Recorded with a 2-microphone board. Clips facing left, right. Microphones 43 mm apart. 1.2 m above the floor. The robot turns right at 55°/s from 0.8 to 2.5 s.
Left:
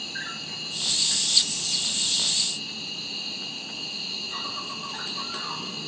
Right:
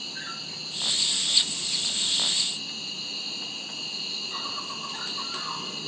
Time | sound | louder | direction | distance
0.0 | an insect | left 3 dB | 65° left | 1.5 m